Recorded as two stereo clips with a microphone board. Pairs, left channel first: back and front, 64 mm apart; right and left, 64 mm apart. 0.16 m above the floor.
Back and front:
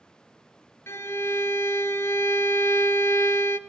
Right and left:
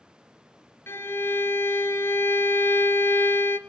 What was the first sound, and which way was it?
A violin, 135° right.